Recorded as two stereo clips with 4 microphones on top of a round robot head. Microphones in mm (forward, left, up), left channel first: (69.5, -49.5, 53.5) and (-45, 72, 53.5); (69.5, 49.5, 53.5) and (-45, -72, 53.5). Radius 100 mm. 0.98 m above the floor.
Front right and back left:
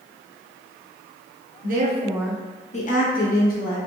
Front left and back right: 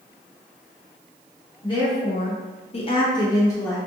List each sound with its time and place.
1.6 s a woman speaking: 110° left, 0.8 m; by 3.8 s 25° right, 1.7 m